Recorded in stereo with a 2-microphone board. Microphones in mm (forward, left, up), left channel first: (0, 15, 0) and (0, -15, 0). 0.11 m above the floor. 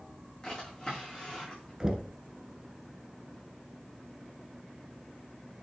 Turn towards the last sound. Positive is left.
turn(degrees=-20)  # may be behind; listen again after turning